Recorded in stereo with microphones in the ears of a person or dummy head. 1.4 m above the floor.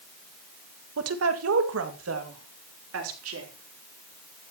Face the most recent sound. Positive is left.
turn(degrees=-85)